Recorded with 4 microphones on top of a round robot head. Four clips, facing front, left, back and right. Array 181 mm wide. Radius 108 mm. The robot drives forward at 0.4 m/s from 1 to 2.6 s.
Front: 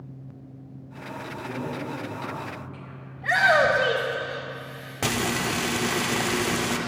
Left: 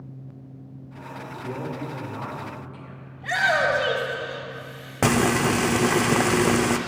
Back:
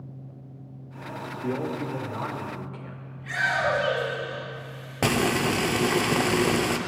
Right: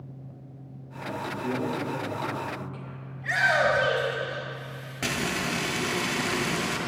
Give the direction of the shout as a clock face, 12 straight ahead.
11 o'clock.